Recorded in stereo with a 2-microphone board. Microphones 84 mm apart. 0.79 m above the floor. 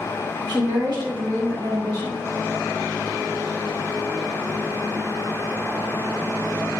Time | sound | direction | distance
0.5 | a woman speaking | 50° right (ahead or behind) | 1.6 m